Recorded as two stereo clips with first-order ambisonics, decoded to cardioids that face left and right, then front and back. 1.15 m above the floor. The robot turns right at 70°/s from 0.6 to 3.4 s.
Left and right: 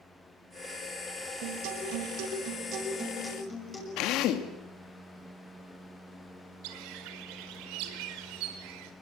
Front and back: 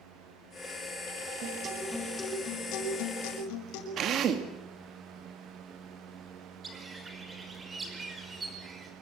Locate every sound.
1.4 s a guitar: 130° right, 6 m; by 3.9 s 10° left, 6 m
4.0 s a drill: 125° left, 2.5 m
6.6 s a bird: 105° right, 4.5 m